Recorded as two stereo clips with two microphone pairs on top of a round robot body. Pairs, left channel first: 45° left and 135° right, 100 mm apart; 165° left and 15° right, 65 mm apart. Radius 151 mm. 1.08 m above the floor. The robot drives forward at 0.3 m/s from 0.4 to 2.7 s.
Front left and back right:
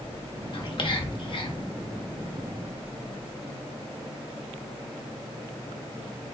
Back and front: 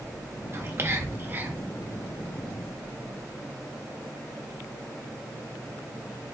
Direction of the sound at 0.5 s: 20° left.